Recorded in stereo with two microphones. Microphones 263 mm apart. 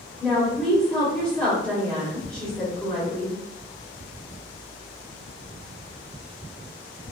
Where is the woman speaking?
5° left (ahead or behind), 1.7 m.